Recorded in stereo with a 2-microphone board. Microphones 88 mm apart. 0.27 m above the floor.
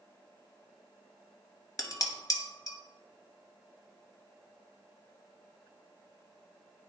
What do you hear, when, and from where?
1.8 s dishes clattering: 40° left (ahead or behind), 1.0 m